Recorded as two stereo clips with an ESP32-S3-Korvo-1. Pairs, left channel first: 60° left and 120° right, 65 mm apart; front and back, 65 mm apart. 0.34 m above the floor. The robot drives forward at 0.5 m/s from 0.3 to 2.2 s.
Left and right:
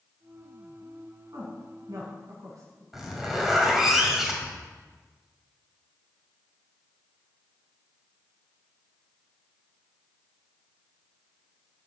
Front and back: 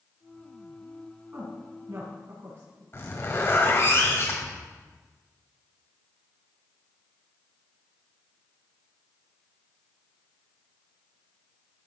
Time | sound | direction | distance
1.3 | a woman speaking | 120° right | 3 m
2.9 | a zipper | 40° right | 1.8 m